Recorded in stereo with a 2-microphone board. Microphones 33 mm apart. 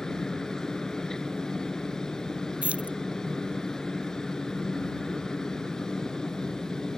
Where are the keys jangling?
45° right (ahead or behind).